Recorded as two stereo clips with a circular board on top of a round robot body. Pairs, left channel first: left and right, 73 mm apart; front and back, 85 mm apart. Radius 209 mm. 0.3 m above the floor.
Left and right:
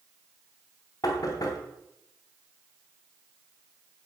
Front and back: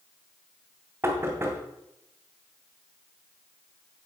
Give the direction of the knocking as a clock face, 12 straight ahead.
8 o'clock.